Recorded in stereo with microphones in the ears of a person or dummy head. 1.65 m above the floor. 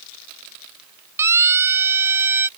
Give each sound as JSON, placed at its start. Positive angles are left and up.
{"t": 1.2, "sound": "a siren", "side_deg": -15}